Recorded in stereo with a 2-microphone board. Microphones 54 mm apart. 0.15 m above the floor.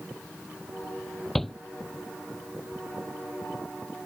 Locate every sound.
1.4 s a shout: 5° left (ahead or behind)